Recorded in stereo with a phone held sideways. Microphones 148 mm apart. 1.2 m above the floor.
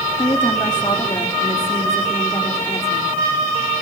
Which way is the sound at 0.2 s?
35° left (ahead or behind).